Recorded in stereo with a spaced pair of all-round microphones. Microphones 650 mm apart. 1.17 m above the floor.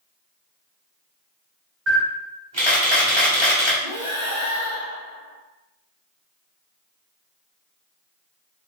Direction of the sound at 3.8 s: 45° right (ahead or behind).